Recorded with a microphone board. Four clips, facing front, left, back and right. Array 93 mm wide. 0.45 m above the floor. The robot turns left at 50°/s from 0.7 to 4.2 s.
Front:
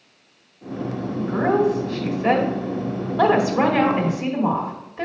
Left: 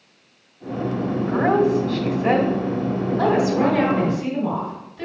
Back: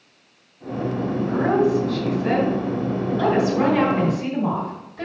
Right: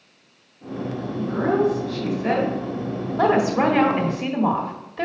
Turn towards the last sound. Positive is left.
turn(degrees=-70)